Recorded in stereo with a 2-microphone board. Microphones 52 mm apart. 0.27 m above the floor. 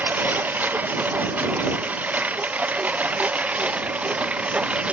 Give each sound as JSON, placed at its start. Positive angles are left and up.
{"t": 0.0, "sound": "a lawn mower", "side_deg": -35}